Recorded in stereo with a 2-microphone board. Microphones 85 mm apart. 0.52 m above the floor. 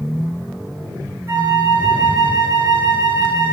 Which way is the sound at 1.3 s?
35° right (ahead or behind).